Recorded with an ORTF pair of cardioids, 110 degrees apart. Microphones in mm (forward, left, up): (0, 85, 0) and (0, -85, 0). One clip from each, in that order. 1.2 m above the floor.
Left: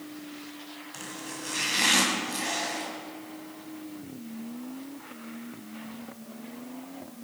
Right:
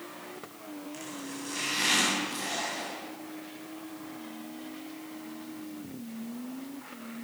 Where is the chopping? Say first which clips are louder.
Left 4 dB; 35° left, 7.5 m.